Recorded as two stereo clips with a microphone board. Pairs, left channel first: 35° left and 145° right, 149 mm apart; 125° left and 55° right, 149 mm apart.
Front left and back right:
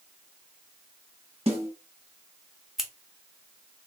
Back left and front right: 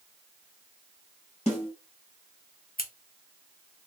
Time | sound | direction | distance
1.5 | a snare drum | 170° left | 1.5 m
2.8 | scissors | 125° left | 0.6 m